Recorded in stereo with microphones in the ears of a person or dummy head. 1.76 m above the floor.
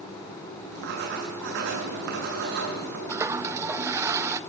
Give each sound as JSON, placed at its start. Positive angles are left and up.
{"t": 0.7, "sound": "writing", "side_deg": -60, "distance_m": 7.5}
{"t": 3.1, "sound": "a toilet flushing", "side_deg": -15, "distance_m": 0.7}